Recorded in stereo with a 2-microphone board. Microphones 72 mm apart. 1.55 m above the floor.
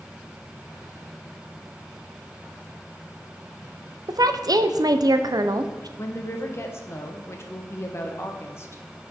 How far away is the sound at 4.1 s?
About 0.6 m.